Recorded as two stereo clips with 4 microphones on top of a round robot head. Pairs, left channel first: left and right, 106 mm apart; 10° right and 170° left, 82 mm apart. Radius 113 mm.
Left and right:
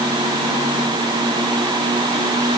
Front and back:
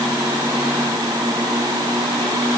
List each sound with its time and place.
Only background noise.